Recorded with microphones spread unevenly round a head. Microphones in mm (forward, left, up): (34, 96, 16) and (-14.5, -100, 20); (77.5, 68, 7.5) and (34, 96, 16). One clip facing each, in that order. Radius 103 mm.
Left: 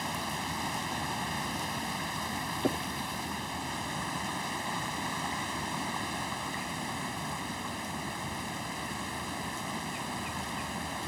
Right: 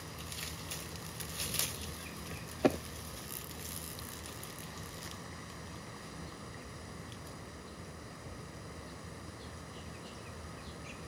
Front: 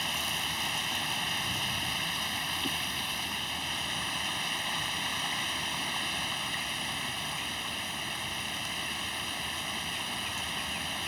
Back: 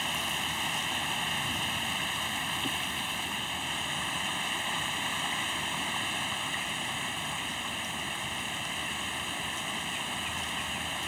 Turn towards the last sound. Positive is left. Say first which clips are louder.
# left 11 dB, back 1 dB
turn(degrees=70)